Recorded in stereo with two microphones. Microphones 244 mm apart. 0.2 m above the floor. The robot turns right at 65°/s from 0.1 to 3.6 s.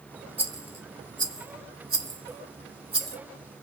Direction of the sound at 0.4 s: 5° right (ahead or behind).